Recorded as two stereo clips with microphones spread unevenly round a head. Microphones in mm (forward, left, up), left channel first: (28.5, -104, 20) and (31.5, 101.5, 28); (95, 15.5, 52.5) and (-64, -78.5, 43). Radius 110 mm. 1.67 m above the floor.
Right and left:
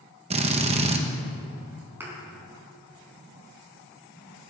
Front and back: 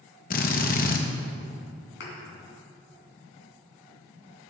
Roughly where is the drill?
Ahead left.